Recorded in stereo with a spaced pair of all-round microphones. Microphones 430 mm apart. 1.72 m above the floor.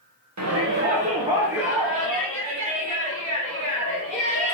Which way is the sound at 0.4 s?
40° right (ahead or behind).